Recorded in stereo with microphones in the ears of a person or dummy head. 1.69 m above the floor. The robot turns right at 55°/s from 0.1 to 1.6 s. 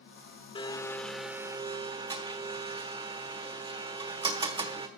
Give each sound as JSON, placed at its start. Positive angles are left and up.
{"t": 0.6, "sound": "a blender", "azimuth_deg": 145, "distance_m": 1.0}